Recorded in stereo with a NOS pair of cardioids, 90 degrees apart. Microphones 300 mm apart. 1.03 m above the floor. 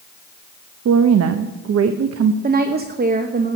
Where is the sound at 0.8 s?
55° right, 0.9 m.